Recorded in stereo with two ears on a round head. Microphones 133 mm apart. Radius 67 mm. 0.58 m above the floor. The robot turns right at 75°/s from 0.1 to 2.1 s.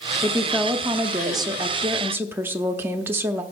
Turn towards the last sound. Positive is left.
turn(degrees=-15)  # may be behind; listen again after turning